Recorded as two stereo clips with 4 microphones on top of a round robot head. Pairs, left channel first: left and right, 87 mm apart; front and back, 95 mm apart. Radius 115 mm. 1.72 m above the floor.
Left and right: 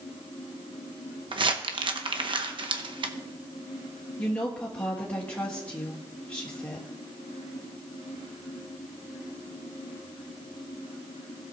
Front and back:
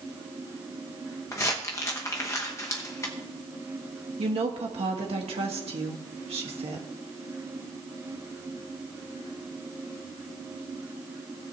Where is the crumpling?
65° right, 0.8 m.